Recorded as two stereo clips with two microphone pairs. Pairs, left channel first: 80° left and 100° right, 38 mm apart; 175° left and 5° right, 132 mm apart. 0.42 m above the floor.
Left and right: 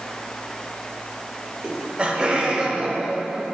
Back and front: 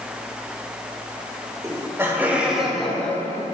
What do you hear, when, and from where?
1.6 s laughter: 60° right, 1.4 m; by 3.4 s 145° right, 1.2 m